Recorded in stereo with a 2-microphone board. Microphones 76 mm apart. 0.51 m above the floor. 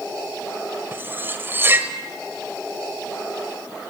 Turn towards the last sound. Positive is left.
turn(degrees=-30)  # may be behind; listen again after turning